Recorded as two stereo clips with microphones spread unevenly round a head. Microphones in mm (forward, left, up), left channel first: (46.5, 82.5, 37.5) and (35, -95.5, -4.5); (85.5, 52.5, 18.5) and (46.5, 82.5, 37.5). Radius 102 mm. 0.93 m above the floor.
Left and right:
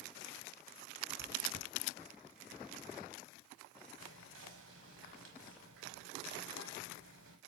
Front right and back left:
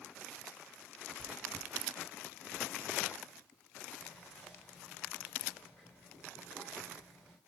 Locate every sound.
1.2 s chewing: 50° right, 5 m
4.0 s whispering: 115° right, 5 m